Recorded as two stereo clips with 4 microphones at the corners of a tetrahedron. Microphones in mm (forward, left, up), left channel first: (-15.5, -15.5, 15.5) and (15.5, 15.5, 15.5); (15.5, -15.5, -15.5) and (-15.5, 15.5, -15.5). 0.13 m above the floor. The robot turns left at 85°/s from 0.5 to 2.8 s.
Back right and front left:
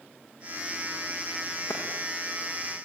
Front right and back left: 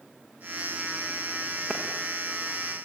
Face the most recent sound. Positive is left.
turn(degrees=110)